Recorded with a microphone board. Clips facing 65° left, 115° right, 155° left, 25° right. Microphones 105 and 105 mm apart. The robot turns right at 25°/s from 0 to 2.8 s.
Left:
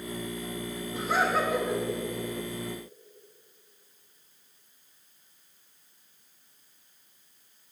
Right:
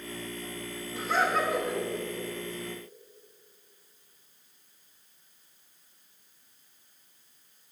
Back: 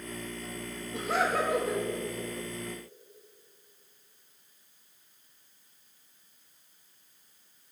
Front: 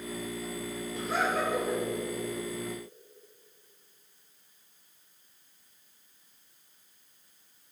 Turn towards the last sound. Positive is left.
turn(degrees=-170)